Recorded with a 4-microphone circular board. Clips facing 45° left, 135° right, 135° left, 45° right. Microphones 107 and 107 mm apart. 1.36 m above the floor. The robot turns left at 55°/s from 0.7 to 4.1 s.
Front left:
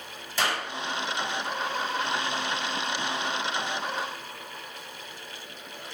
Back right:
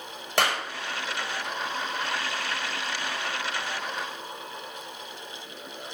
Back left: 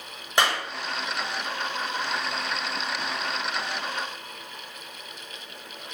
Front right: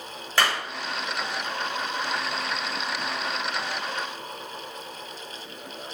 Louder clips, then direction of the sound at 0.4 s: Back right 3 dB, back left 1 dB; 155° right.